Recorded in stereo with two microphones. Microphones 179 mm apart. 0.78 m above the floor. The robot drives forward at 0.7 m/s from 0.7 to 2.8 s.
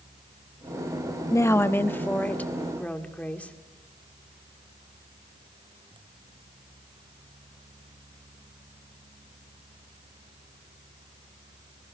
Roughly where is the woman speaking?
Centre.